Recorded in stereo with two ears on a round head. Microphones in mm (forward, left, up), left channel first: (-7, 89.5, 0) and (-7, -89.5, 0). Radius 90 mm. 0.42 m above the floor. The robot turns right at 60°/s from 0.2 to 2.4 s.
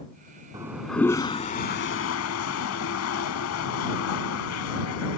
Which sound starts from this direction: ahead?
A toilet flushing, at 0.5 s.